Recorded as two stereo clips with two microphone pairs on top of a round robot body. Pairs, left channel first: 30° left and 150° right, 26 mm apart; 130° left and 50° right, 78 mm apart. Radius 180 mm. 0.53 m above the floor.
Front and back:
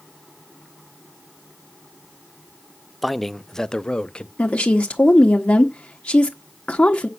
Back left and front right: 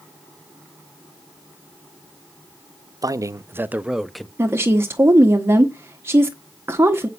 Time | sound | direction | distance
3.0 | a man speaking | 60° right | 0.8 m
4.4 | a woman speaking | 10° left | 1.2 m